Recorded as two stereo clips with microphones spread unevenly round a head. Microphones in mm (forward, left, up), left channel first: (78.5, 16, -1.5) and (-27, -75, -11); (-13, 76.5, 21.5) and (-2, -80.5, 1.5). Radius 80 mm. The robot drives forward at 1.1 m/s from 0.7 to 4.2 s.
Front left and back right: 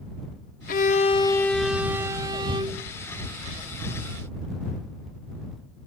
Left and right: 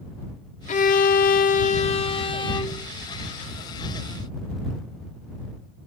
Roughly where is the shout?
I don't hear a shout.